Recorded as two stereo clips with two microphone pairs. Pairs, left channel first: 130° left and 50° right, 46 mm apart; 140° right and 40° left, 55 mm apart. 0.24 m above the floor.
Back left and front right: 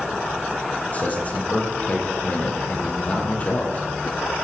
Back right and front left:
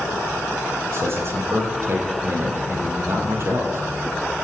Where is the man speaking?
75° left, 8.5 m.